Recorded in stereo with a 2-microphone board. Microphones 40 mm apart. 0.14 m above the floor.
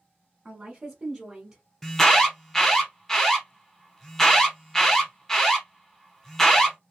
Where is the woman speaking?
30° right (ahead or behind), 1.2 m; by 1.6 s 20° right (ahead or behind), 1.5 m.